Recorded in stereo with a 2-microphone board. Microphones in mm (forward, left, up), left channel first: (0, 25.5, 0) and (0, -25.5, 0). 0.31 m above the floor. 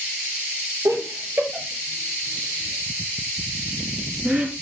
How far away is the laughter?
About 8.5 m.